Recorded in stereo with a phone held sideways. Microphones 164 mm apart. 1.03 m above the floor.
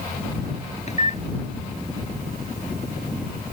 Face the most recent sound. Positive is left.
turn(degrees=40)  # may be behind; listen again after turning